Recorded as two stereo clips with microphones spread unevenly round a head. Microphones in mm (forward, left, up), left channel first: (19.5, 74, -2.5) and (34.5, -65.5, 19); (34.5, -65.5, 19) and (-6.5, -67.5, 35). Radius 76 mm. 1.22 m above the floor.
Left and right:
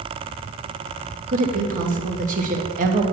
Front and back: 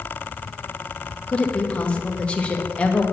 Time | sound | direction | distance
1.3 | a woman speaking | 55° right | 2 m